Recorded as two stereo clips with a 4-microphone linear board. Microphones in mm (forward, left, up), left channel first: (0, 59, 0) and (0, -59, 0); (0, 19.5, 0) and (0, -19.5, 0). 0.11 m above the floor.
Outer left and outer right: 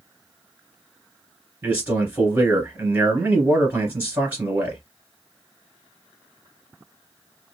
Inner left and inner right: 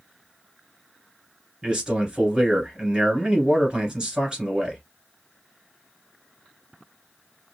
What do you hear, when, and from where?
1.6 s a man speaking: 15° right (ahead or behind), 1.8 m